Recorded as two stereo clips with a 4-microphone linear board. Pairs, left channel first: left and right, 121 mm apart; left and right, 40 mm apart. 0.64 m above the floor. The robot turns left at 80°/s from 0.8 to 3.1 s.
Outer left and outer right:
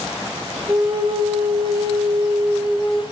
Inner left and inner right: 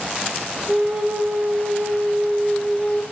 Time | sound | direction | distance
0.7 | a flute | 25° right | 1.3 m